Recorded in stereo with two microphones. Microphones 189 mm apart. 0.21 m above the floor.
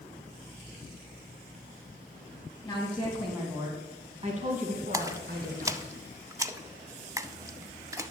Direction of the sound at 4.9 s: 15° right (ahead or behind).